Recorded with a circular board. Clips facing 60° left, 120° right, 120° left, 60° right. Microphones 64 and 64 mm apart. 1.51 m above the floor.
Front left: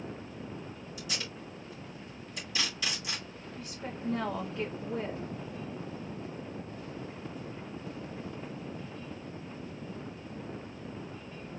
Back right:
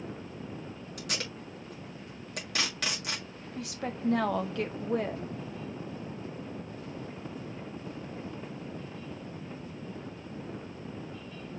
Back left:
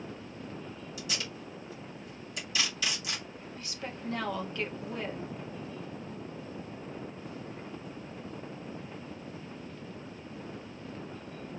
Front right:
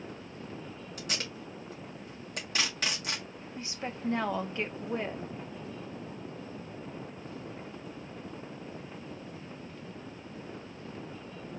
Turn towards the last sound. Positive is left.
turn(degrees=-125)